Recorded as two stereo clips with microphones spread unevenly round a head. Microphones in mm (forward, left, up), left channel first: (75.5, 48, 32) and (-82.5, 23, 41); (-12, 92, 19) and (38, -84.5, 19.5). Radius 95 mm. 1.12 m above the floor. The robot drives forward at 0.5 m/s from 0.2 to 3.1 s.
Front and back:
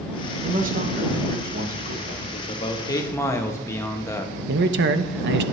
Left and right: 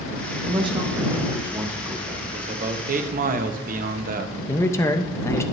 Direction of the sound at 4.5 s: Straight behind.